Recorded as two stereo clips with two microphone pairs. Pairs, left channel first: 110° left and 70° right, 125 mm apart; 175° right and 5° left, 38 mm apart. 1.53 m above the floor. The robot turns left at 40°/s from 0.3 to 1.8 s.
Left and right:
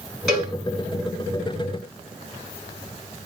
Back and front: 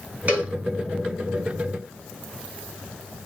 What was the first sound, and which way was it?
A cowbell, 25° left.